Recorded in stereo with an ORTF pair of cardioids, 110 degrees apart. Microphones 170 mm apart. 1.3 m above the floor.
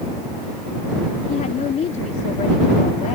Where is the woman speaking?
45° left.